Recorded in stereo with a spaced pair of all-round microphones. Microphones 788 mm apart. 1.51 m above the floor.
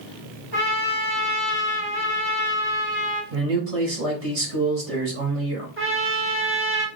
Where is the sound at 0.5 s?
25° right (ahead or behind), 2 m.